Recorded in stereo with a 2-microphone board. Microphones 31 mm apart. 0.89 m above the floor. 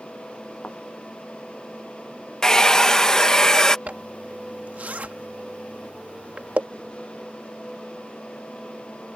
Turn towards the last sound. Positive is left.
turn(degrees=-60)  # may be behind; listen again after turning